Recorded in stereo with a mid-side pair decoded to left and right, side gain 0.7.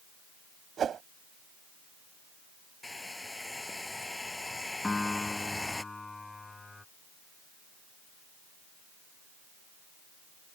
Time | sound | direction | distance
0.8 | a whoosh | 35° right | ?
2.8 | a hair dryer | 10° left | ?
4.8 | a piano | 10° left | ?